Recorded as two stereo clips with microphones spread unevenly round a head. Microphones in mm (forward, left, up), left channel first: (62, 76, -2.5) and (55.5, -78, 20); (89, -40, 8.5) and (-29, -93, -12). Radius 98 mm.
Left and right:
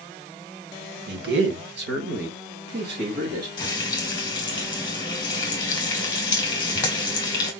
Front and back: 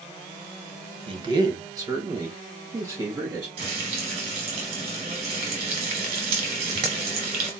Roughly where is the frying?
Behind left.